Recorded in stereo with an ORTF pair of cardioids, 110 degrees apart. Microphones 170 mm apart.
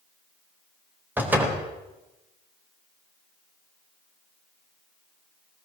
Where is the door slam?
10° right, 4 m.